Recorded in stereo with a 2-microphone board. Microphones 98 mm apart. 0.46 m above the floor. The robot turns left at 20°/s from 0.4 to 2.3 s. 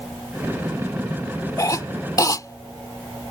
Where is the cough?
35° left (ahead or behind).